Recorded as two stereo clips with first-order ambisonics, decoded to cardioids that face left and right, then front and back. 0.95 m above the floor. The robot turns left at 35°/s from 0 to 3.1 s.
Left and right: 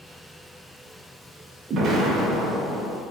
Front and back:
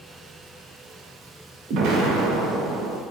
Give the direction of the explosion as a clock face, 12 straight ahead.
5 o'clock.